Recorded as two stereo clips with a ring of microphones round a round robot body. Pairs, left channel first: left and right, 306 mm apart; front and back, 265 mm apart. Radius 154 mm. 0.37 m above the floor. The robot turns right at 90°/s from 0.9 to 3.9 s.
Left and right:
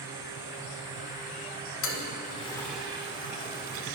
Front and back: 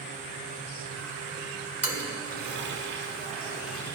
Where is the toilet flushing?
95° left, 1.2 m; by 4.0 s 75° right, 1.2 m.